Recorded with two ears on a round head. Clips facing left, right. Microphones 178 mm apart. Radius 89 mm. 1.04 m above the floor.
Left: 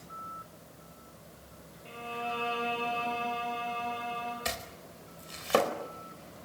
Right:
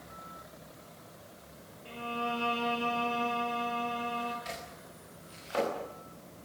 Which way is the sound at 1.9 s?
15° right (ahead or behind).